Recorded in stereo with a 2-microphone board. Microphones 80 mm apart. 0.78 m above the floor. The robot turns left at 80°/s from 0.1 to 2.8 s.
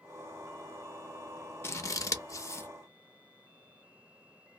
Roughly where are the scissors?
Left.